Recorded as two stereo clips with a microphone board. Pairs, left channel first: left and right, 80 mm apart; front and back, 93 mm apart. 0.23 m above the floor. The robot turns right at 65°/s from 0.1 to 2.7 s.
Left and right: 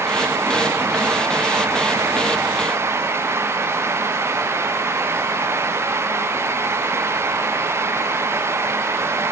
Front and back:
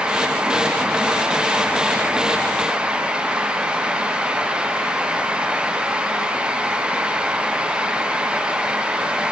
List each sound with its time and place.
Only background noise.